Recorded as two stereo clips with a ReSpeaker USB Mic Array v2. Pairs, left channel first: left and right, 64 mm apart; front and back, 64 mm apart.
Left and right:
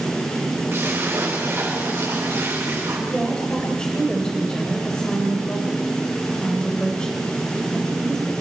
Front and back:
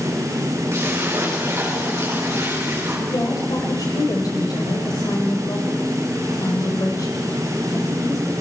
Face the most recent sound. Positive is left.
turn(degrees=10)